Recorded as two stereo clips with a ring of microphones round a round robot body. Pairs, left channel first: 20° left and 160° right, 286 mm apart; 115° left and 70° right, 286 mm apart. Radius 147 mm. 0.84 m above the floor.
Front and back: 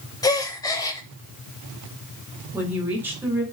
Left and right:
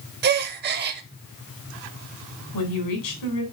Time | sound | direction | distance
0.2 | a gasp | 45° right | 0.7 m
2.5 | a woman speaking | 120° left | 3.5 m